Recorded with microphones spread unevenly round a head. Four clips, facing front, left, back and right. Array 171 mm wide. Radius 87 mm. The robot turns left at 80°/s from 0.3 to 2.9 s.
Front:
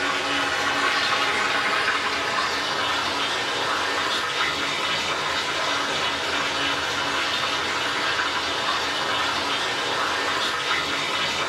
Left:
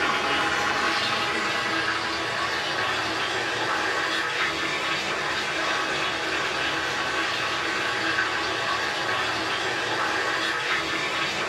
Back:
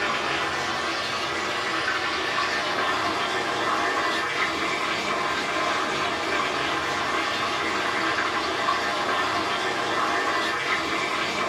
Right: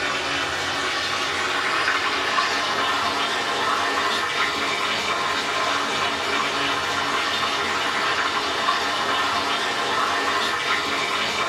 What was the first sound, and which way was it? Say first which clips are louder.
Running water: left 2 dB, front 1 dB; 75° left.